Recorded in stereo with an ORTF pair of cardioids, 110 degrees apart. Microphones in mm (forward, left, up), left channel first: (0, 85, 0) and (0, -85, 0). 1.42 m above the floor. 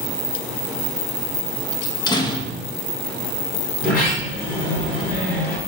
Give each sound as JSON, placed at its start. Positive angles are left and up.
{"t": 1.8, "sound": "a door slam", "azimuth_deg": 25, "distance_m": 1.5}
{"t": 3.8, "sound": "a sliding door", "azimuth_deg": 60, "distance_m": 4.0}